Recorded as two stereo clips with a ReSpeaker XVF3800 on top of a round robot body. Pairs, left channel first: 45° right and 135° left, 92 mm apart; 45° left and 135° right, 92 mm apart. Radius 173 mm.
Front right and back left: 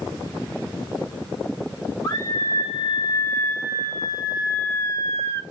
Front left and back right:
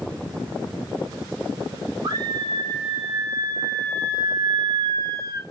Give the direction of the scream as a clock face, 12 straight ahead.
3 o'clock.